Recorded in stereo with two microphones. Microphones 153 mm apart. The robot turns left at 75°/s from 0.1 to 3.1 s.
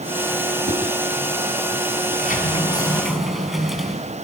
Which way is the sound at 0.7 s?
85° right.